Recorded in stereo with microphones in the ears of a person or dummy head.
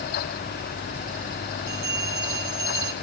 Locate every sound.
1.7 s a bell: 15° right (ahead or behind), 0.7 m